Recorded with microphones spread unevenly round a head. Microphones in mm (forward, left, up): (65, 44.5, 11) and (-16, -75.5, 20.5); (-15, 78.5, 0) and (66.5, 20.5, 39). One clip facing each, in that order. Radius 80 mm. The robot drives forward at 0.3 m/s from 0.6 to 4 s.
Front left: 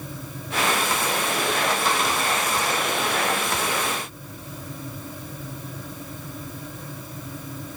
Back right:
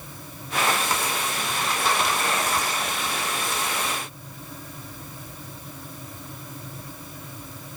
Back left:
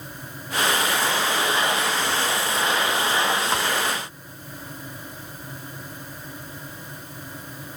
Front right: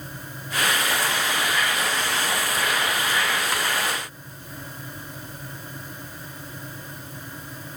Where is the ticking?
No ticking in this recording.